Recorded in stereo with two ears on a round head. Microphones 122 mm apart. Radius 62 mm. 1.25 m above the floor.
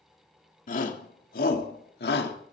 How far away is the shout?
About 3 m.